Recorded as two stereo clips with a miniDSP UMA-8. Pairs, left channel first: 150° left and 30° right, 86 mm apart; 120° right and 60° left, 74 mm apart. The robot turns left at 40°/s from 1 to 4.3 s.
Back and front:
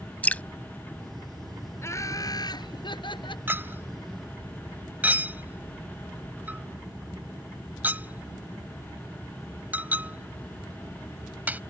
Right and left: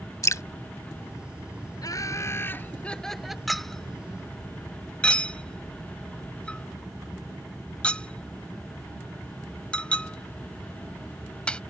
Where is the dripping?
145° right.